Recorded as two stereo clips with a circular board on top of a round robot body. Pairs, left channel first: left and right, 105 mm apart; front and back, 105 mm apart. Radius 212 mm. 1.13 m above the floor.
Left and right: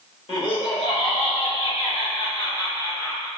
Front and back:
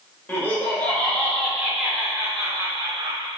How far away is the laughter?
About 1.5 m.